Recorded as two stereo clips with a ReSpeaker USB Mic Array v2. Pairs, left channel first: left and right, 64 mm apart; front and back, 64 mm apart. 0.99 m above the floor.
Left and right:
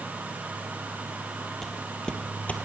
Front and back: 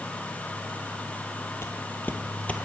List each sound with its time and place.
1.6 s footsteps: 10° left, 1.2 m; by 2.6 s 55° left, 1.1 m